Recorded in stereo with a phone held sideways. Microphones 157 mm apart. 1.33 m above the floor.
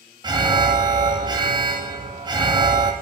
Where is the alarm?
25° right (ahead or behind), 2.5 m.